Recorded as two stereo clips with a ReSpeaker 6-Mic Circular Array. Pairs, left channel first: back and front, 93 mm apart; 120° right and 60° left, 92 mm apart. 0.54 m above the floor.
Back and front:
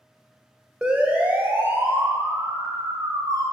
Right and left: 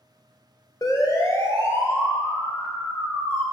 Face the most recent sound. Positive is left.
turn(degrees=-50)